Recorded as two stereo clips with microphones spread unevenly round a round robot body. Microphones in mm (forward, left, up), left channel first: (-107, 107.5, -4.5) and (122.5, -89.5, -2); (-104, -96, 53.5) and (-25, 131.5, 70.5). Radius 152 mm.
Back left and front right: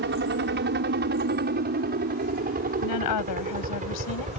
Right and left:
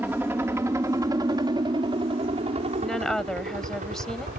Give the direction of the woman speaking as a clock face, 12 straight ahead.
7 o'clock.